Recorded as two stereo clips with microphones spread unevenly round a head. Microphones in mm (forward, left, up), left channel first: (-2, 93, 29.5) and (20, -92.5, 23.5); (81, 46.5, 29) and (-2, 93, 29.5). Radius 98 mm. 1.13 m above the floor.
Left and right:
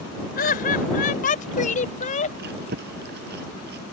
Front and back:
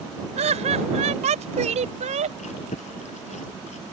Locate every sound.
0.4 s laughter: 145° left; by 2.3 s 155° left
2.4 s chewing: 40° right